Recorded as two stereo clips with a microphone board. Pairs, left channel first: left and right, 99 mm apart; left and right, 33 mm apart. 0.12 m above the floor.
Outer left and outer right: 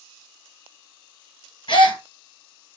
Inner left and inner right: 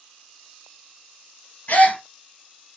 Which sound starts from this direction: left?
A gasp, at 1.7 s.